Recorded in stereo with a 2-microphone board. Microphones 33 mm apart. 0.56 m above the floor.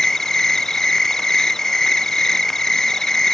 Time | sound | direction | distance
0.0 | an insect | 15° left (ahead or behind) | ?